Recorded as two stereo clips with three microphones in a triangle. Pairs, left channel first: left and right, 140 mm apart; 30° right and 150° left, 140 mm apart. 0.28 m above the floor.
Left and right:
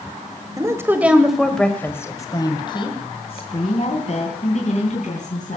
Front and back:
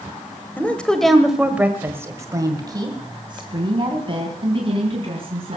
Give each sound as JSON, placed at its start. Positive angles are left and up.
{"t": 0.6, "sound": "a woman speaking", "azimuth_deg": -90, "distance_m": 1.6}